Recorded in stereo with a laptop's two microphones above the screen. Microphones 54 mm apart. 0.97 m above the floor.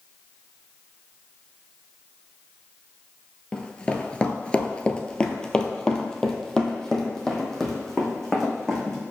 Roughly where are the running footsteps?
Centre.